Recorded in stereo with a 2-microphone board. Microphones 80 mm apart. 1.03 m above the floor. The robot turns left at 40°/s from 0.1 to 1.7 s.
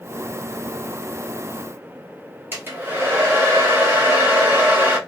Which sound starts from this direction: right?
A hair dryer, at 2.5 s.